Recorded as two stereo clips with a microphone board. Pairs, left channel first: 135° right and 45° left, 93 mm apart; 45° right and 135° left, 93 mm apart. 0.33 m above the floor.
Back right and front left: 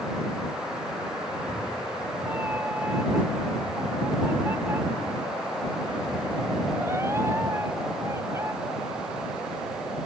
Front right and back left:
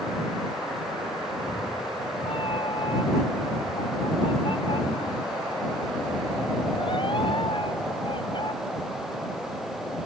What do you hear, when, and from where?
1.3 s a cat meowing: 25° right; by 8.5 s 15° right